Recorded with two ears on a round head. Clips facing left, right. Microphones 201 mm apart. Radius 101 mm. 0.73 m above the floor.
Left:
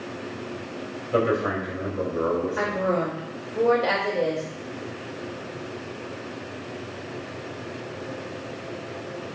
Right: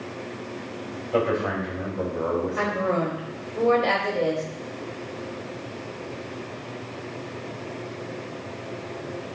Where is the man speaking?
20° left (ahead or behind), 3 m.